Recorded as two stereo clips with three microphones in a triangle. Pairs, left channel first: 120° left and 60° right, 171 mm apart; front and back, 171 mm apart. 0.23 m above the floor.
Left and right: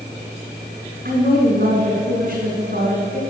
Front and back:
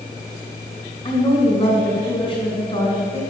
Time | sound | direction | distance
1.1 | a woman speaking | 55° right | 2.5 m